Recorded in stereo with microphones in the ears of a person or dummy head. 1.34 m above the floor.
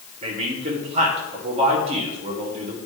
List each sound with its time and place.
0.2 s a man speaking: 40° right (ahead or behind), 1.7 m